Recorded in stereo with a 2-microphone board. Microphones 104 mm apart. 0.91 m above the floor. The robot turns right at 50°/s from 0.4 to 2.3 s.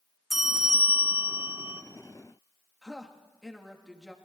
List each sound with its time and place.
0.3 s a bell: centre (ahead or behind), 0.9 m; by 1.8 s 25° right (ahead or behind), 0.9 m
2.8 s a woman speaking: 5° right (ahead or behind), 1.2 m